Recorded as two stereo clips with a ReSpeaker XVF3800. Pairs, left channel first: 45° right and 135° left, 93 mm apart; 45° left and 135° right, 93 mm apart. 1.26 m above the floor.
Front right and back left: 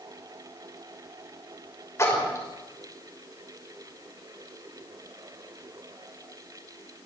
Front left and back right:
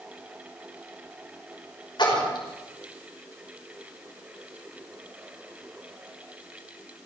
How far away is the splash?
About 5.5 m.